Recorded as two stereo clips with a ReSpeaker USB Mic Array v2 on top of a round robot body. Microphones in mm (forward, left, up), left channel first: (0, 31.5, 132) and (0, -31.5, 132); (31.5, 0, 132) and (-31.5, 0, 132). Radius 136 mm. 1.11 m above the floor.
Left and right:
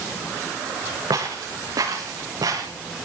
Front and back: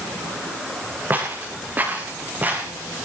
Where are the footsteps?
120° right, 5 m; by 2.7 s 115° right, 6 m.